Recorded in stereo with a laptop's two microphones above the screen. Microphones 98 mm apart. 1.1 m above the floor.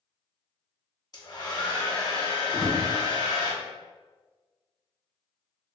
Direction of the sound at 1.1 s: 40° left (ahead or behind).